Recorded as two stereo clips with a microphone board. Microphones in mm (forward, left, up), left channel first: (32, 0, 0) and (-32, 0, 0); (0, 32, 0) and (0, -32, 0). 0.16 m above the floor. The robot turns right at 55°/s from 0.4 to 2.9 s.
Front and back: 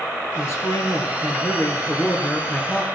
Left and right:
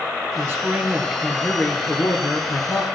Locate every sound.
0.3 s a man speaking: 45° right, 2.5 m; by 2.8 s 90° left, 2.5 m